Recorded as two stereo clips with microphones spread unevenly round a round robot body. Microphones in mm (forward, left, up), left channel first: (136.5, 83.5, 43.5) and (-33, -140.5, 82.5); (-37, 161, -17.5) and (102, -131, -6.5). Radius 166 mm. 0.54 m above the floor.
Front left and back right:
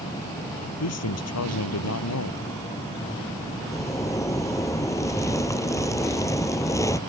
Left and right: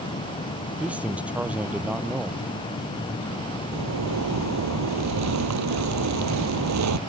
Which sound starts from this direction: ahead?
A man speaking, at 0.8 s.